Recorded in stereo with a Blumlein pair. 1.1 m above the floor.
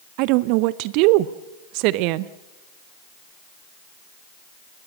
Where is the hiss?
I don't hear a hiss.